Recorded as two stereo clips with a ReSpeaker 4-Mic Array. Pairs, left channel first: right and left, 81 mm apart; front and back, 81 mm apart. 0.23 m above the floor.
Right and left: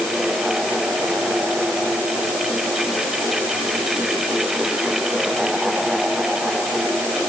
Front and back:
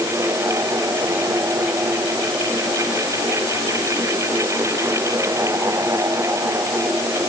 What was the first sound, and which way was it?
Only background noise.